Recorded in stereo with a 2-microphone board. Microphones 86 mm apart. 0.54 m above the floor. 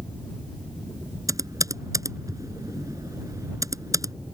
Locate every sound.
1.3 s typing on a keyboard: 40° right (ahead or behind)